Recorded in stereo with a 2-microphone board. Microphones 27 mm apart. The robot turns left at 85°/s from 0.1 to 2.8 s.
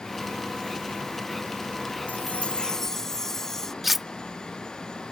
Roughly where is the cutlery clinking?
Centre.